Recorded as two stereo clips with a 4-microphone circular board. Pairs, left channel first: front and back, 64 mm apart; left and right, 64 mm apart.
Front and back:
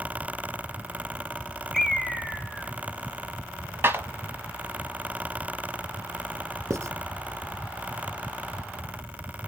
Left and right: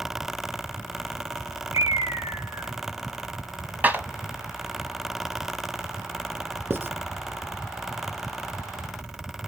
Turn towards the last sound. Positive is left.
turn(degrees=-145)